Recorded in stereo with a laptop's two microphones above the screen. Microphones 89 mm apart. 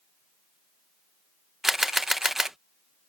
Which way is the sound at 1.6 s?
Centre (ahead or behind).